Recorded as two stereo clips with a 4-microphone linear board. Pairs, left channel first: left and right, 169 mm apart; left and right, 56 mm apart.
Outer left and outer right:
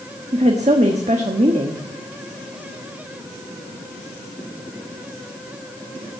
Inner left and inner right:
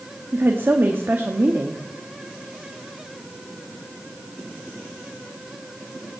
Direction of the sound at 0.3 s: 45° right (ahead or behind).